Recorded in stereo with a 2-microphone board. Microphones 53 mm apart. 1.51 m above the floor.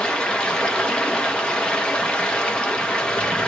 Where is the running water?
15° left (ahead or behind), 1.0 m.